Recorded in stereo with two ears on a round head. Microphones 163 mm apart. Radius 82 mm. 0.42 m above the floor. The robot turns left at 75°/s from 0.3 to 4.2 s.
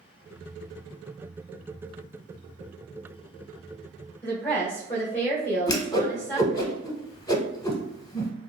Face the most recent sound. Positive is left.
turn(degrees=20)  # may be behind; listen again after turning